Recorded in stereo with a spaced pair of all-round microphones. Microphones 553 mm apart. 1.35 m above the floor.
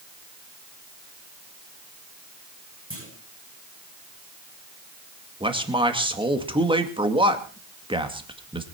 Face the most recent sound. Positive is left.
turn(degrees=-10)  # may be behind; listen again after turning